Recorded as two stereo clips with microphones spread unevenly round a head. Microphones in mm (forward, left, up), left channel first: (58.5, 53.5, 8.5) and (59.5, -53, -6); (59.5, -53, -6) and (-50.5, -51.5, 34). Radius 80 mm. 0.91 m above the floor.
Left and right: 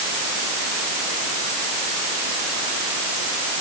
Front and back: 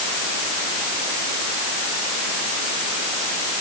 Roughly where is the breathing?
I don't hear breathing.